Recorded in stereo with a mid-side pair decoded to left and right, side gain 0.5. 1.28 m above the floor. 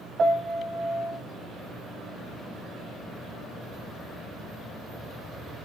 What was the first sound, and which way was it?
A piano, 45° right.